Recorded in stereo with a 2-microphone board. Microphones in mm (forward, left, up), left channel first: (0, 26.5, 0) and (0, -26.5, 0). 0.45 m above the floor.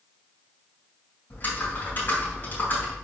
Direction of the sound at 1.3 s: 40° left (ahead or behind).